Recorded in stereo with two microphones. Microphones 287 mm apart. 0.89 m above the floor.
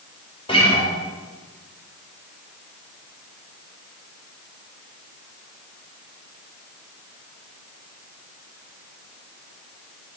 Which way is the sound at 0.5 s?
20° left (ahead or behind).